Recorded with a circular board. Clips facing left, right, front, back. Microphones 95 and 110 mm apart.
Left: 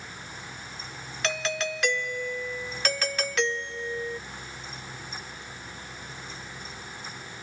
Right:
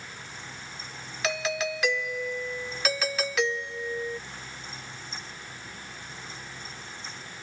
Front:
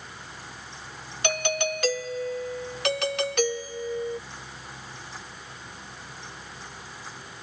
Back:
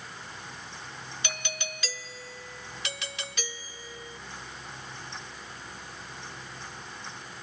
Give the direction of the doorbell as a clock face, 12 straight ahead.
12 o'clock.